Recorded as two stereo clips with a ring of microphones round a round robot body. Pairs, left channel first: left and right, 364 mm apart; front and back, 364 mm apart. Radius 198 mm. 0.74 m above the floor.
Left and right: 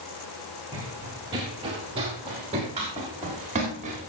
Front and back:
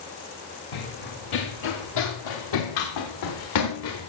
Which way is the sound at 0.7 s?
10° right.